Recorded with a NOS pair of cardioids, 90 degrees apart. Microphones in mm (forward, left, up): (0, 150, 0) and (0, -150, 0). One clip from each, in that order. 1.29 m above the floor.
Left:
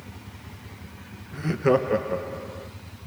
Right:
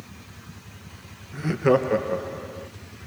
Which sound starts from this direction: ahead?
Laughter, at 1.3 s.